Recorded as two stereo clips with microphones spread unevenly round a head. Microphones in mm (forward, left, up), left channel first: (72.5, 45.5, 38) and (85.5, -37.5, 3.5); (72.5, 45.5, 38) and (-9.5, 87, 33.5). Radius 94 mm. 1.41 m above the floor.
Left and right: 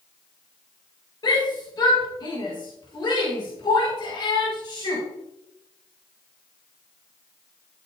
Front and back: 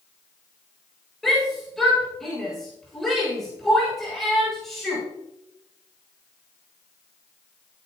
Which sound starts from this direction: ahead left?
A shout, at 1.2 s.